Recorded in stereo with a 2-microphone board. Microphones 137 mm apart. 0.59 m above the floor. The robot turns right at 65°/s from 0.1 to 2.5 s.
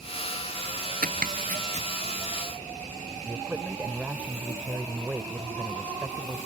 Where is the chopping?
80° right; by 1.9 s 45° right (ahead or behind).